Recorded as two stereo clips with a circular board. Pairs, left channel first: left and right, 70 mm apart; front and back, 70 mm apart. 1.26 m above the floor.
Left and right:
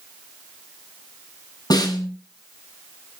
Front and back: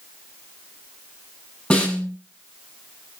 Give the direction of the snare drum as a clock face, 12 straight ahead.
10 o'clock.